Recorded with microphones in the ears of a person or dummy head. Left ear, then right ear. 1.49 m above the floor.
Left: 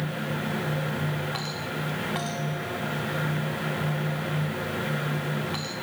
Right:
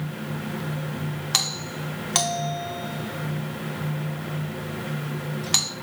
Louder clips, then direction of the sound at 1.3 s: Right 6 dB; 75° right (ahead or behind).